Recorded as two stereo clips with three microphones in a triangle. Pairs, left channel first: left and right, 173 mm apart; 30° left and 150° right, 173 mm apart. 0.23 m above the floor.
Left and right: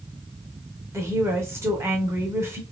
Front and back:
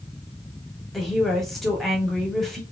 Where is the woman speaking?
55° right, 1.0 m.